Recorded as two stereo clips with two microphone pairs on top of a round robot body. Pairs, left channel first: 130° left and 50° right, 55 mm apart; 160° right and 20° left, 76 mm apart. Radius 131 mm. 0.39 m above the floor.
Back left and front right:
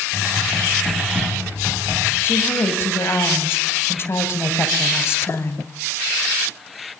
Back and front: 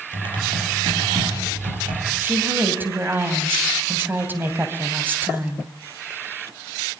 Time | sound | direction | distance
0.1 | typing on a keyboard | 20° left | 7 m
2.2 | a woman speaking | 85° left | 3.5 m